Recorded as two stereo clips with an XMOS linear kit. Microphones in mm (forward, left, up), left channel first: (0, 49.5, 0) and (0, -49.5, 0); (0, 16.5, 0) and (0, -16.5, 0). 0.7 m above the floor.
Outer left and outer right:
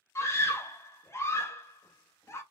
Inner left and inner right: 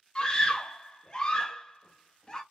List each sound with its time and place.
0.1 s a scream: 25° left (ahead or behind), 0.9 m